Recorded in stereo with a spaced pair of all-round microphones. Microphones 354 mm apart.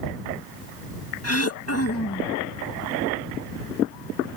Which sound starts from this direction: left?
Throat clearing, at 1.2 s.